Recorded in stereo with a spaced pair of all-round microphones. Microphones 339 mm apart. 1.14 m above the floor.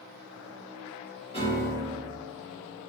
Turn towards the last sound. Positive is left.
turn(degrees=15)  # may be behind; listen again after turning